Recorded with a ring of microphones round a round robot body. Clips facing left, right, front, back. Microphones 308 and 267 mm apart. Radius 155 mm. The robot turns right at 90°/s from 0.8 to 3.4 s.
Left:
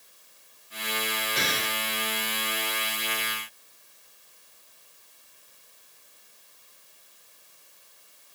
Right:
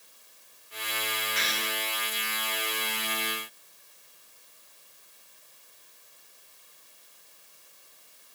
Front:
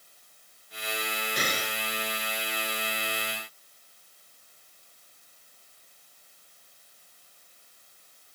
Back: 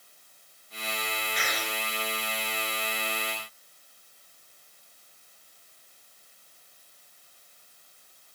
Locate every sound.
1.4 s an explosion: 45° left; by 1.8 s 80° left